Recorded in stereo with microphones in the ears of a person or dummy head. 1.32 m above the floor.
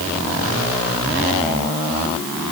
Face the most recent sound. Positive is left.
No sound to turn to.